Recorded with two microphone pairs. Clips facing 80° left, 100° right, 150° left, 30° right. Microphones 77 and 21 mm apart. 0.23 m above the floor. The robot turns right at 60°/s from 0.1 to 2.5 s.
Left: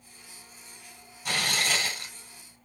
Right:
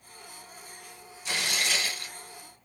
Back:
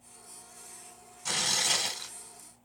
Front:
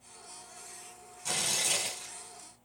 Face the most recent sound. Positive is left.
turn(degrees=165)